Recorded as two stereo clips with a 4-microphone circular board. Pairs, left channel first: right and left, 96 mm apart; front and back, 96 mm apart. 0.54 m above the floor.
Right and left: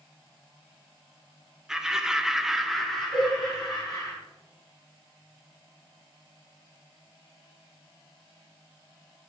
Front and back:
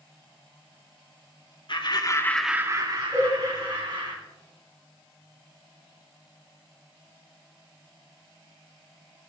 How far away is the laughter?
About 1.1 m.